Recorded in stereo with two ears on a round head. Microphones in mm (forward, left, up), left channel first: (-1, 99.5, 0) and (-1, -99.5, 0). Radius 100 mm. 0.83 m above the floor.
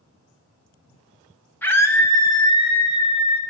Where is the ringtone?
I don't hear a ringtone.